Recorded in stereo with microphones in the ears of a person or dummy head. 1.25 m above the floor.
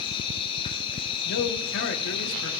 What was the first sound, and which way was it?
An insect, 35° left (ahead or behind).